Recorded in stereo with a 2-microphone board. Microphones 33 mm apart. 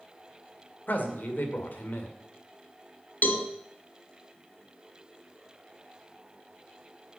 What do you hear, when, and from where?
0.9 s a man speaking: 70° left (ahead or behind), 2 m
3.2 s a cowbell: 65° left (ahead or behind), 1.3 m